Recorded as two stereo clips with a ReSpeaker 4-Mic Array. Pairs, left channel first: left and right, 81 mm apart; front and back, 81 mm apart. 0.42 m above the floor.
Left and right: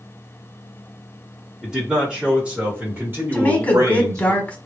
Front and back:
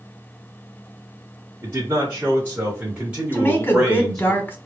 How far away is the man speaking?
About 1.7 m.